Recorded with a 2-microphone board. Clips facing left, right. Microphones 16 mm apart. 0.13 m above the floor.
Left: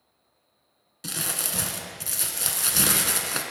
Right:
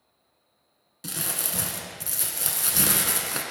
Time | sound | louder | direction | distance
1.0 | crumpling | left 2 dB | 20° left (ahead or behind) | 0.6 m